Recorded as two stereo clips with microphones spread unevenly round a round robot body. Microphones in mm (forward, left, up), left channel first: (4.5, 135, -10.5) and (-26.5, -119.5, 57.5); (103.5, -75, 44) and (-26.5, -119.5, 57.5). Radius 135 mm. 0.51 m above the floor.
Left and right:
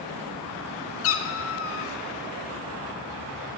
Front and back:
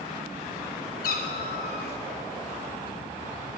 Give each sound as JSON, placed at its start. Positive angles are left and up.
{"t": 1.0, "sound": "a cat meowing", "azimuth_deg": 40, "distance_m": 0.6}